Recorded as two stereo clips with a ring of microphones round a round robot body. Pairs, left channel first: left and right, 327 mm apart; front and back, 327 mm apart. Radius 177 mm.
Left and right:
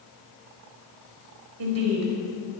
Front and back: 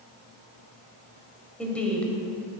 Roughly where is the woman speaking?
Right.